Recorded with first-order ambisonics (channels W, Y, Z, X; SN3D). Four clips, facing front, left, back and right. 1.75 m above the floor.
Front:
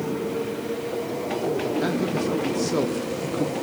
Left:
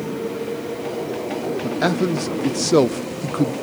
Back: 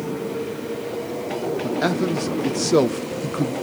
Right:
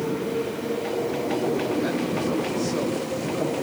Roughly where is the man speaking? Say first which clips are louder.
Left 4 dB, back 3 dB; behind left.